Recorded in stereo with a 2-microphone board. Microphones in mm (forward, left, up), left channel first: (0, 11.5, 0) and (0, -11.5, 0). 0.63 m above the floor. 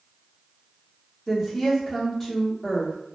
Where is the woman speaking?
5° left (ahead or behind), 1.4 m.